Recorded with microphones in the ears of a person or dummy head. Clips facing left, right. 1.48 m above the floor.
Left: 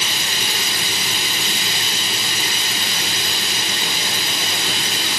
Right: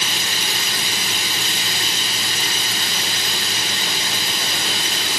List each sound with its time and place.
0.0 s running water: 20° left (ahead or behind), 3 m